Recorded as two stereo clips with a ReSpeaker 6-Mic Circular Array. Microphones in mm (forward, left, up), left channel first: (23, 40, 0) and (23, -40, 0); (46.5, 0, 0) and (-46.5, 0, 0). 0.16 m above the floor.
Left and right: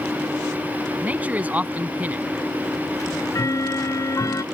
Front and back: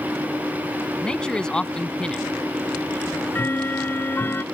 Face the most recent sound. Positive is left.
turn(degrees=60)